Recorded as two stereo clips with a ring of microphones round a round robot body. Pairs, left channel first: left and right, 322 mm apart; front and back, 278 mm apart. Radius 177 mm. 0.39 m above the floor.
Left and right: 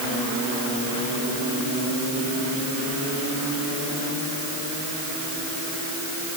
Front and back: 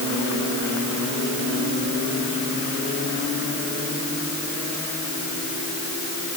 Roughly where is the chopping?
I don't hear chopping.